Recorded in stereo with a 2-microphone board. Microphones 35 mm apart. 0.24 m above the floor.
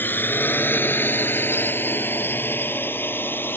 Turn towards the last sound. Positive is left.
turn(degrees=75)  # may be behind; listen again after turning